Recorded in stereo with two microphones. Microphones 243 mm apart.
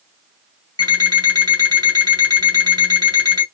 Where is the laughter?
I don't hear laughter.